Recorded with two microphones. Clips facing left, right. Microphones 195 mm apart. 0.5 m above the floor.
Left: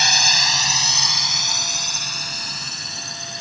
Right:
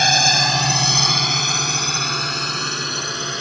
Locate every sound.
0.0 s a drone: 50° right (ahead or behind); by 3.4 s 70° right (ahead or behind)